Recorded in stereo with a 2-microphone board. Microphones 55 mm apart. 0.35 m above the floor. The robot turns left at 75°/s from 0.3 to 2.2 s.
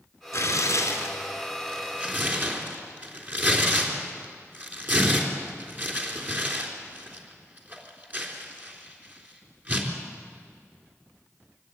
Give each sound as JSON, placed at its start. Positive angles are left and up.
{"t": 0.3, "sound": "tearing paper", "side_deg": 70, "distance_m": 3.5}